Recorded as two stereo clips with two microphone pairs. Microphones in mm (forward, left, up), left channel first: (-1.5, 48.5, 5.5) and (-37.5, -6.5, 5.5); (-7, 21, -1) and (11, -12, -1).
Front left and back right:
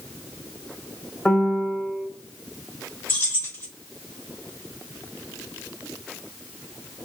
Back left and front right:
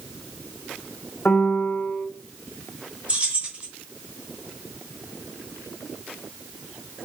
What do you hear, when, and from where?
1.2 s a piano: 125° left, 0.9 m
3.1 s keys jangling: straight ahead, 1.5 m